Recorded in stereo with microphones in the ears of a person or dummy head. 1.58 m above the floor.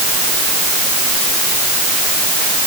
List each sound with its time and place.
Only background noise.